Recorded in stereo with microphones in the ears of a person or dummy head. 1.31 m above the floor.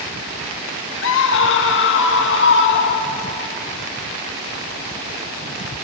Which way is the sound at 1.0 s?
70° left (ahead or behind).